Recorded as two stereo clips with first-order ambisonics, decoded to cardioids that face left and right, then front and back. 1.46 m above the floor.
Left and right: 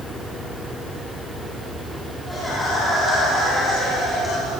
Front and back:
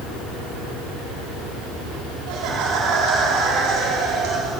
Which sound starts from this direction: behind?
Laughter, at 2.3 s.